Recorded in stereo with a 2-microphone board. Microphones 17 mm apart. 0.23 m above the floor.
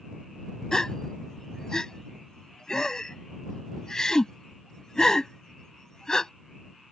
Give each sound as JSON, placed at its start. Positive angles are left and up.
{"t": 0.7, "sound": "a gasp", "side_deg": 30}